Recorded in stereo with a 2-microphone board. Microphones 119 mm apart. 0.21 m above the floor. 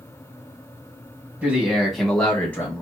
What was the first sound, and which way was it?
A man speaking, 10° right (ahead or behind).